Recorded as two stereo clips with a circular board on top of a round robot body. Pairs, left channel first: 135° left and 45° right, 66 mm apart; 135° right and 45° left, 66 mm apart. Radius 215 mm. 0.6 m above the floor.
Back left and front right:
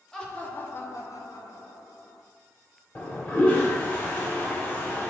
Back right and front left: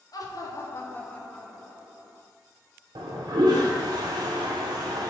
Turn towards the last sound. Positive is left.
turn(degrees=65)